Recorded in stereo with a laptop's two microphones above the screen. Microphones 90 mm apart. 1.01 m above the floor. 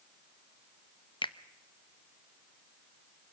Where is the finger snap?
65° left (ahead or behind), 0.7 m.